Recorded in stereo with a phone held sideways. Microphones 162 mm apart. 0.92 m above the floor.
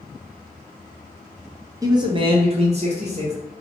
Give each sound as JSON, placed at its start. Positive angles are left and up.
{"t": 1.8, "sound": "a man speaking", "side_deg": -20, "distance_m": 0.6}